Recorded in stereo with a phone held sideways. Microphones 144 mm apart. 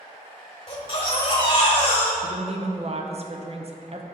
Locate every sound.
0.7 s a baby crying: 35° left (ahead or behind), 1.1 m
2.2 s a woman speaking: 45° right (ahead or behind), 0.6 m